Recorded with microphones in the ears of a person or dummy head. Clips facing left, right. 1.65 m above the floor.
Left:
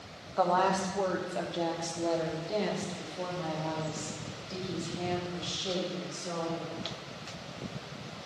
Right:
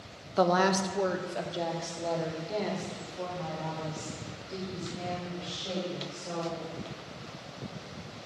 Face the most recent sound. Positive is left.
turn(degrees=15)  # may be behind; listen again after turning